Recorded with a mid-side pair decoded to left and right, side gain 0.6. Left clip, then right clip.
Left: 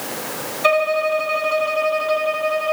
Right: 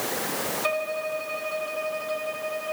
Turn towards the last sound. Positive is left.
turn(degrees=45)